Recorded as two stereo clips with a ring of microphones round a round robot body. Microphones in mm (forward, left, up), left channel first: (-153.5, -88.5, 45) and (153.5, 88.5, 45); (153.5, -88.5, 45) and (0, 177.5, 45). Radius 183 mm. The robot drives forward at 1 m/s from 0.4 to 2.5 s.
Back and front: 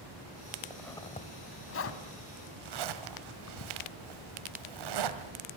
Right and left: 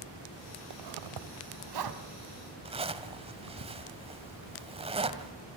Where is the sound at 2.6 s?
50° left, 1.7 m.